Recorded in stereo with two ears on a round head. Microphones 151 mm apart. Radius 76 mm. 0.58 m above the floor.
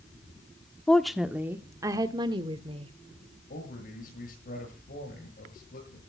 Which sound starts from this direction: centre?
A woman speaking, at 0.9 s.